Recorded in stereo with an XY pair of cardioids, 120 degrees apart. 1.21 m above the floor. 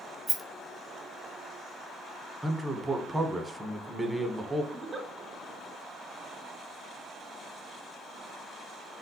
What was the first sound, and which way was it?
A rattle, 10° right.